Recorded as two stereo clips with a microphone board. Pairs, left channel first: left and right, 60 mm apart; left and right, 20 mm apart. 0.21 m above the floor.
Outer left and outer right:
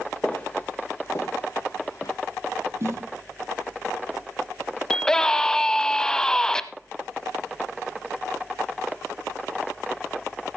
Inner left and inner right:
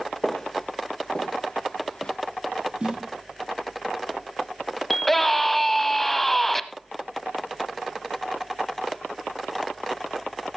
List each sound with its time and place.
0.2 s footsteps: 20° left (ahead or behind), 2.0 m; by 2.1 s 65° left (ahead or behind), 2 m
2.8 s a snare drum: 50° right (ahead or behind), 3 m
4.9 s a scream: 10° left (ahead or behind), 1.0 m